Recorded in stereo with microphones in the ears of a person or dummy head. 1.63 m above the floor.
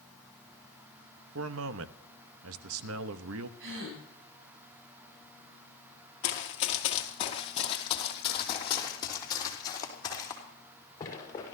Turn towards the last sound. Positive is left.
turn(degrees=20)  # may be behind; listen again after turning